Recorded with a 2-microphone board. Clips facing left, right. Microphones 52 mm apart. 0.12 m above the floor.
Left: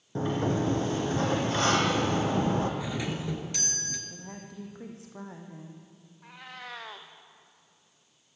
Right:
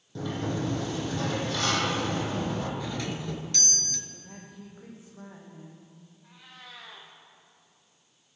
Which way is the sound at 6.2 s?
65° left (ahead or behind).